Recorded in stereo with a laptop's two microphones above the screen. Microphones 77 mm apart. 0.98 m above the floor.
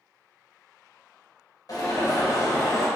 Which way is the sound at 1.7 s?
55° left (ahead or behind).